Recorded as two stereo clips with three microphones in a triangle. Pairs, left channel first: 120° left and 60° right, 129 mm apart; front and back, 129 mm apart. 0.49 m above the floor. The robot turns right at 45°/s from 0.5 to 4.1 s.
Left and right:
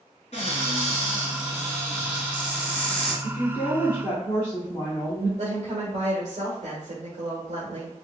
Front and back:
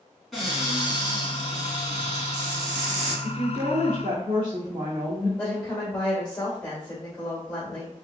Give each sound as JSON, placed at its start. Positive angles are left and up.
{"t": 0.3, "sound": "a cupboard door", "azimuth_deg": 90, "distance_m": 1.9}
{"t": 3.2, "sound": "a woman speaking", "azimuth_deg": 145, "distance_m": 1.1}
{"t": 5.4, "sound": "a woman speaking", "azimuth_deg": -80, "distance_m": 1.3}